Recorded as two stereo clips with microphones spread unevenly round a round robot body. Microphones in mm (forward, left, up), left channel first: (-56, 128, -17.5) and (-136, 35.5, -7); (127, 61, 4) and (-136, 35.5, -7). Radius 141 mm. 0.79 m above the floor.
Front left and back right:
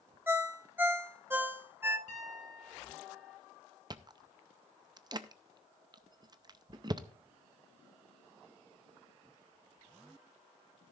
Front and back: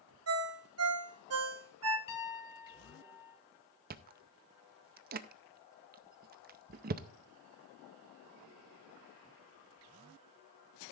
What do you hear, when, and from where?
0.3 s a ringtone: 155° left, 1.7 m
2.1 s a piano: 15° right, 1.7 m
3.9 s chewing: 165° right, 0.5 m